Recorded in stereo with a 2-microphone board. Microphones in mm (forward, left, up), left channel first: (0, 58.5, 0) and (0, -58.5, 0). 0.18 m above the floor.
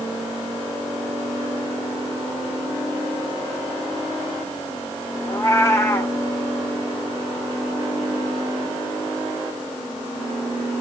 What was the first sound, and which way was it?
A cat meowing, 25° left (ahead or behind).